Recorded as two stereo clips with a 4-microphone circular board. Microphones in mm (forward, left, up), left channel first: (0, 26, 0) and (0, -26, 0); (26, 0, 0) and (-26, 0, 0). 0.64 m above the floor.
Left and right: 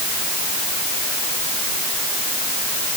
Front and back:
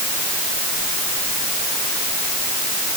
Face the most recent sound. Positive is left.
No sound to turn to.